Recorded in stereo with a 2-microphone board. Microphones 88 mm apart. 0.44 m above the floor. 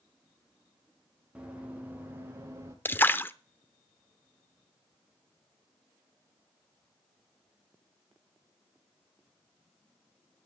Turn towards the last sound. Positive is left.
turn(degrees=25)  # may be behind; listen again after turning